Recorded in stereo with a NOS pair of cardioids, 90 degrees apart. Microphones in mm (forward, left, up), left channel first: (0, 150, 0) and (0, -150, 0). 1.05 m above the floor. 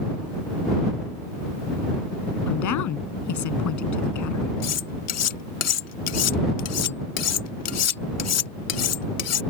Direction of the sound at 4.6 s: 60° left.